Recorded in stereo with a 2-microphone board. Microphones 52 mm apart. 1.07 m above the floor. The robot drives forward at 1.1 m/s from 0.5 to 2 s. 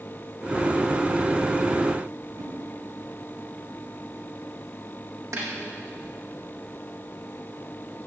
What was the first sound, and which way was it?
A whoosh, 75° right (ahead or behind).